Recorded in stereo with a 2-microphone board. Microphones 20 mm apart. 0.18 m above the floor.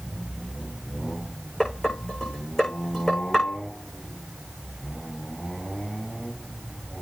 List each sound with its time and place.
1.6 s dishes clattering: 25° left (ahead or behind), 9 m